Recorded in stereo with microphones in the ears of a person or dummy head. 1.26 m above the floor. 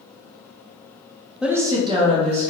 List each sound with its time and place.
1.4 s a woman speaking: 5° right (ahead or behind), 0.6 m; by 2.5 s 40° right (ahead or behind), 1.5 m